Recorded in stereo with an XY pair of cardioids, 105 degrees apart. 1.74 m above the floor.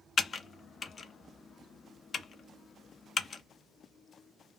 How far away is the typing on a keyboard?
About 0.5 m.